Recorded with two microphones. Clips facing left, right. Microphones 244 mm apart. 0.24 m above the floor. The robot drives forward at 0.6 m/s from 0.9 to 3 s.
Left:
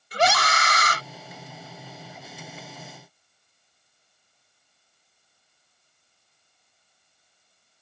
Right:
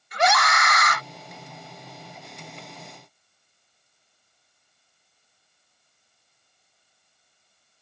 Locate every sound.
0.1 s a scream: 35° left (ahead or behind)